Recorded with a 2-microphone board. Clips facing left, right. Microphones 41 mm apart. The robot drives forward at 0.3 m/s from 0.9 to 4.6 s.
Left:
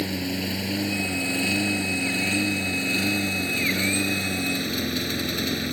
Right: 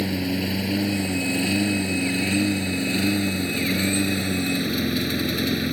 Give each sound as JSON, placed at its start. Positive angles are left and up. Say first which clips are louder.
{"t": 0.0, "sound": "a lawn mower", "louder": "right 3 dB", "side_deg": -5}